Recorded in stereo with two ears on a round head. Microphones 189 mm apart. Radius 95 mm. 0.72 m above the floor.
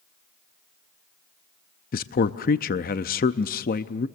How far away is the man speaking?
About 0.6 m.